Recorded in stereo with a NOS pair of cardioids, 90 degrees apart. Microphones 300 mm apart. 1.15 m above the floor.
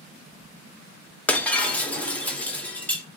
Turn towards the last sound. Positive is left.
turn(degrees=5)